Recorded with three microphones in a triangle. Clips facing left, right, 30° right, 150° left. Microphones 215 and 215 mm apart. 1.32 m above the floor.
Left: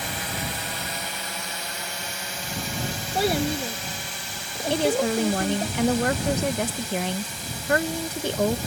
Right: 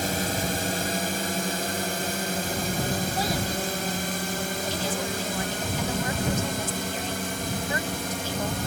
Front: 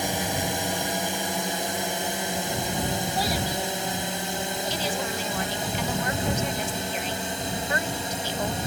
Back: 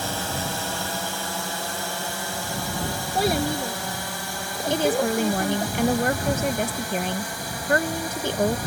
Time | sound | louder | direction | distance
0.0 | a drone | right 5 dB, front 2 dB | 95° right | ?
3.1 | a child speaking | left 4 dB, back 5 dB | 115° left | ?
4.7 | a woman speaking | left 8 dB, back 13 dB | 115° left | ?